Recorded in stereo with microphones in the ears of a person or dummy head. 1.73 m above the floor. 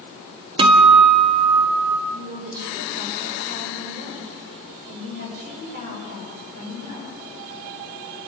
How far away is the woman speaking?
About 9 m.